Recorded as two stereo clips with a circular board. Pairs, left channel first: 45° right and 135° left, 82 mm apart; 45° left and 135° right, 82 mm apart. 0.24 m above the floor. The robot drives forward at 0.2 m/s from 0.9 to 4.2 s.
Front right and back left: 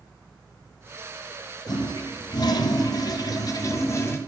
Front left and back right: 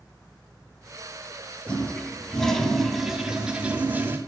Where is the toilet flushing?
30° right, 0.7 m; by 4.2 s 85° right, 0.5 m.